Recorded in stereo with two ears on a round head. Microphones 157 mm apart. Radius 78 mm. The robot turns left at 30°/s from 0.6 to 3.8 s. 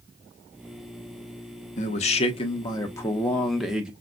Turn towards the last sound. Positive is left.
turn(degrees=-5)